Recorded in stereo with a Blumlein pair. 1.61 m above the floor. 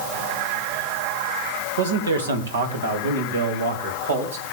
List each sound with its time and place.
1.8 s a man speaking: 70° right, 2.5 m; by 4.4 s 65° right, 4.5 m